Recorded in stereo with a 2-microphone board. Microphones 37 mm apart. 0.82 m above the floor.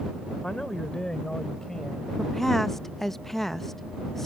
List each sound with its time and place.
0.4 s a man speaking: 20° left (ahead or behind); by 2.1 s 15° left (ahead or behind)
2.2 s a woman speaking: 5° left (ahead or behind)